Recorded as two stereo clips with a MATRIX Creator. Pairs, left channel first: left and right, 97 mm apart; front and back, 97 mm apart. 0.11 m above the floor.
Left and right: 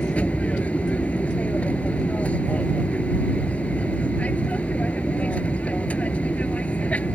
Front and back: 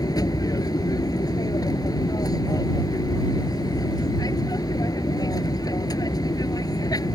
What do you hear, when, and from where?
0.0 s an aircraft: 20° left